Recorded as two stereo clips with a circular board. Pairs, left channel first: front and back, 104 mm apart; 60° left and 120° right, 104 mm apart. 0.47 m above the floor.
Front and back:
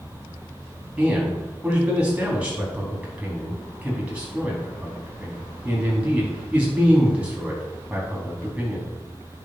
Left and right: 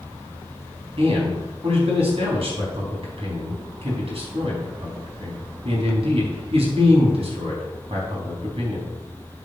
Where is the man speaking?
100° right, 4.5 m.